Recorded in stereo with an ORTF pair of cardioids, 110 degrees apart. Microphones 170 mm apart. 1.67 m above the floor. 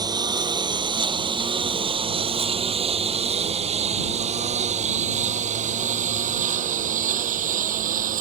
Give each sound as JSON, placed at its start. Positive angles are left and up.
{"t": 0.0, "sound": "a lawn mower", "azimuth_deg": -25}